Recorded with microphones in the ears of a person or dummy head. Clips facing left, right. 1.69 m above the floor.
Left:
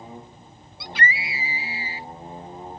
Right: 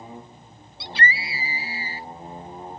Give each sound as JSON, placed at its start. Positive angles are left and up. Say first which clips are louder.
{"t": 0.8, "sound": "a scream", "louder": "even", "side_deg": -20}